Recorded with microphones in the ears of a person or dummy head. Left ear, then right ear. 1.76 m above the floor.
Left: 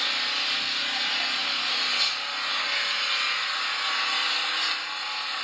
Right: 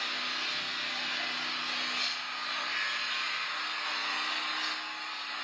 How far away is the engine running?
About 1.9 m.